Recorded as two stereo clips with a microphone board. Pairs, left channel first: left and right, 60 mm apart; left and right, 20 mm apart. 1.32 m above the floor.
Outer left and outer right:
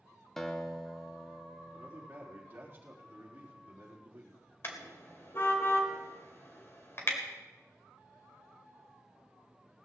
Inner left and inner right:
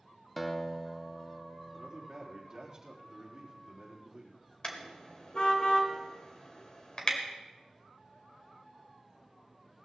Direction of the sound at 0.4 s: 5° left (ahead or behind).